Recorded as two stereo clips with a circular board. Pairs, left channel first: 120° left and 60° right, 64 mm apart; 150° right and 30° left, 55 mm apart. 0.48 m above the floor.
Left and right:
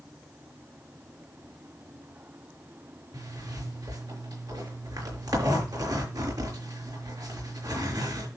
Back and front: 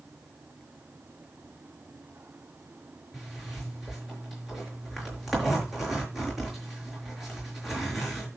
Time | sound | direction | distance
3.1 | a zipper | 60° right | 5.5 m